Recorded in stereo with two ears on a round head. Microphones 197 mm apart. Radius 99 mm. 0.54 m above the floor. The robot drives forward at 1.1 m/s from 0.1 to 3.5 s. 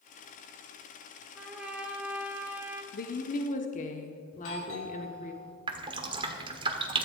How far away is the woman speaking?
About 1.0 m.